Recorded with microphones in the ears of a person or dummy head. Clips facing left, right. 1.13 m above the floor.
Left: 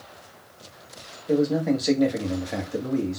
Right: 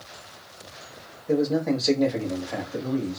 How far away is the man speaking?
About 1.6 m.